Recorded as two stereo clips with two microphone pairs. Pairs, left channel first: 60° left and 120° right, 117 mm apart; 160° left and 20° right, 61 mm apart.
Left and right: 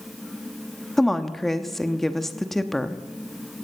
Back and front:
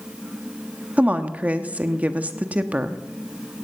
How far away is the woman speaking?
About 0.8 m.